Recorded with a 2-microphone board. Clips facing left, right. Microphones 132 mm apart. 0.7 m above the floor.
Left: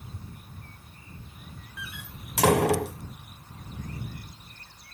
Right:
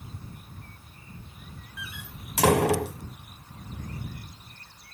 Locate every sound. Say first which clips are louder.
1.8 s a door slam: even; centre (ahead or behind)